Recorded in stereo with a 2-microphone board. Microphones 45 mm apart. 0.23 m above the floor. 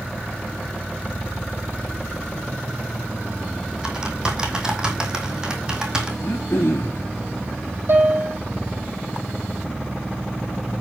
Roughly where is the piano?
Right.